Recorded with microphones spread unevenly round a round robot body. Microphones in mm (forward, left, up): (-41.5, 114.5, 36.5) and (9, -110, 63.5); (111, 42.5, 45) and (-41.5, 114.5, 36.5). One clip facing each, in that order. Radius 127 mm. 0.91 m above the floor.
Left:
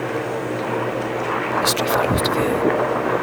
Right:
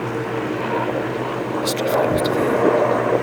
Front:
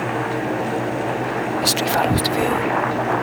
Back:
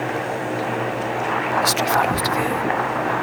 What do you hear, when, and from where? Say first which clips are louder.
1.6 s whispering: right 2 dB, front 1 dB; 25° left